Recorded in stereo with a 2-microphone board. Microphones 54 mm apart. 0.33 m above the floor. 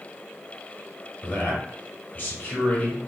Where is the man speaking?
35° left (ahead or behind), 1.8 m.